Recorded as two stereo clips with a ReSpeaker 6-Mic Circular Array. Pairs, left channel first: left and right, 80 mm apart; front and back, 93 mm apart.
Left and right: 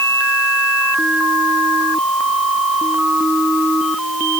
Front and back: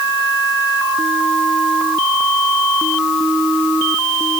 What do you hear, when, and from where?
Only background noise.